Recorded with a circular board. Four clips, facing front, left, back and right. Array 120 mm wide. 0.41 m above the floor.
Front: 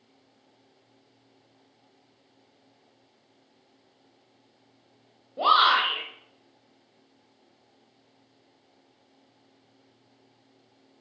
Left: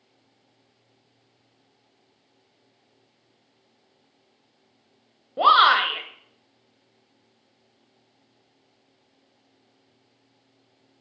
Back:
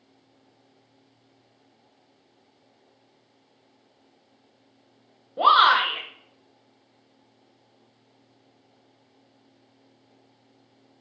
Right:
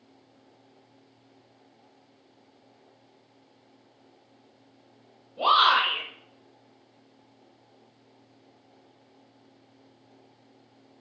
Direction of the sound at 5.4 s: 110° left.